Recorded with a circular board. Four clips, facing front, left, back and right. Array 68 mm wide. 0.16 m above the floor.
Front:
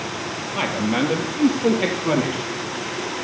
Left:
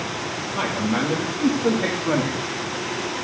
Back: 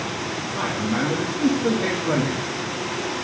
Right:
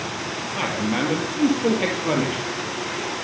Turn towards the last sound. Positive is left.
turn(degrees=-45)